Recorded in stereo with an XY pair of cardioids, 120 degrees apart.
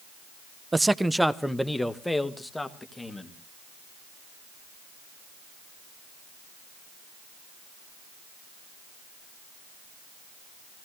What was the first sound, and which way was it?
A man speaking, 15° right.